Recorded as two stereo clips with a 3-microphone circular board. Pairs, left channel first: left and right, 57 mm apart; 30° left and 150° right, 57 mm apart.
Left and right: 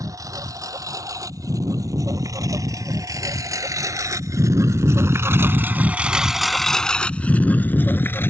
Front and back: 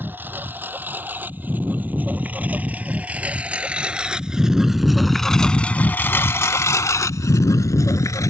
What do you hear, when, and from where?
0.0 s a lawn mower: 95° right; by 8.3 s 45° left